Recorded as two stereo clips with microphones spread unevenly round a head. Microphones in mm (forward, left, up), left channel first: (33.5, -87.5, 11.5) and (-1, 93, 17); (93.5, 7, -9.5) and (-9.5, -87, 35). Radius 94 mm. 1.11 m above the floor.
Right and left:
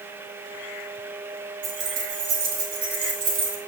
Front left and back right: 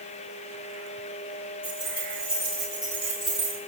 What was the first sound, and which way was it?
Keys jangling, 110° left.